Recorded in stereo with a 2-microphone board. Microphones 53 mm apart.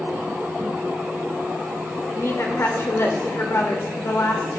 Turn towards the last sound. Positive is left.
turn(degrees=60)  # may be behind; listen again after turning